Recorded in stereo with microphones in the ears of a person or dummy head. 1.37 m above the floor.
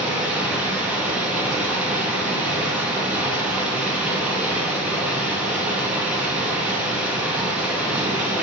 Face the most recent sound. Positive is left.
turn(degrees=-5)  # may be behind; listen again after turning